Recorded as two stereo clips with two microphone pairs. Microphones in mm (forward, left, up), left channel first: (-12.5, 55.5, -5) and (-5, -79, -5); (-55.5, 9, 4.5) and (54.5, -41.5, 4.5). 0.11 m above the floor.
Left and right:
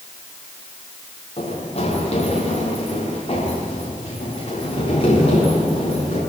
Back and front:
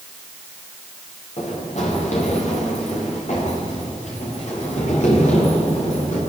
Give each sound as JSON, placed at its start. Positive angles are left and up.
{"t": 1.4, "sound": "running footsteps", "azimuth_deg": 135, "distance_m": 8.5}